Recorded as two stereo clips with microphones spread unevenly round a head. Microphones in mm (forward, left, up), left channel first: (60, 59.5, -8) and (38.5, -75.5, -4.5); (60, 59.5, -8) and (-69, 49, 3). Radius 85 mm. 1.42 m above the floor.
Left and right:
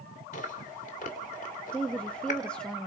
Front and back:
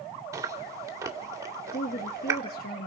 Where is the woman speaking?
Straight ahead, 1.0 m.